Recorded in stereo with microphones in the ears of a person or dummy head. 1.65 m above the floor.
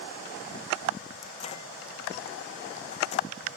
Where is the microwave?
40° left (ahead or behind).